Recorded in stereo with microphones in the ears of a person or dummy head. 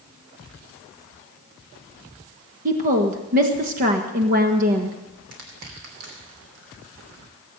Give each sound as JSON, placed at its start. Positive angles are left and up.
{"t": 2.6, "sound": "a woman speaking", "side_deg": -45, "distance_m": 1.3}
{"t": 5.3, "sound": "crushing", "side_deg": -70, "distance_m": 3.0}